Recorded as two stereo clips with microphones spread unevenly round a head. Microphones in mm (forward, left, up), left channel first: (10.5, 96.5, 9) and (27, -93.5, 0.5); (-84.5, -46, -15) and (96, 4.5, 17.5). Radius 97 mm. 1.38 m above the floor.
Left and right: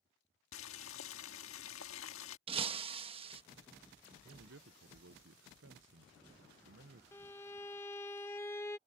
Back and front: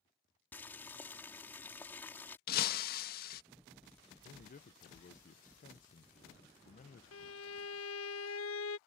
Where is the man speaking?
115° right.